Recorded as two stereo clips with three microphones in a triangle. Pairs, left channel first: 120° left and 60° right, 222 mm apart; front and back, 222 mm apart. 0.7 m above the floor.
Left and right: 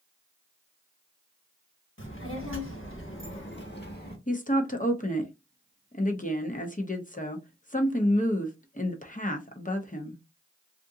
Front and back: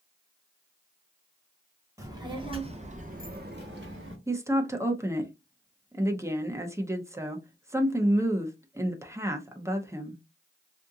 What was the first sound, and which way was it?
A child speaking, 105° left.